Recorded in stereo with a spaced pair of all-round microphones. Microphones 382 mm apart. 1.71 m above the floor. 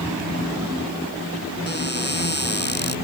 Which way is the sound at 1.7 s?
25° left (ahead or behind).